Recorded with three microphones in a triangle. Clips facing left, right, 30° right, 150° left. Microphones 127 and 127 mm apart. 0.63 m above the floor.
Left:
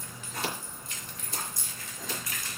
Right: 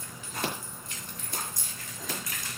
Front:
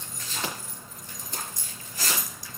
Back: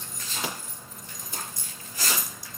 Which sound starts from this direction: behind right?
Scissors, at 0.4 s.